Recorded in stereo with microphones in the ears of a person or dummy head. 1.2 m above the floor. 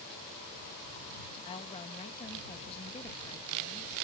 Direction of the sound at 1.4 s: 30° left (ahead or behind).